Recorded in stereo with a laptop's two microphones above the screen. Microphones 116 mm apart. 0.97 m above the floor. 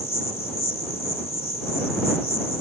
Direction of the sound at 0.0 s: 65° left (ahead or behind).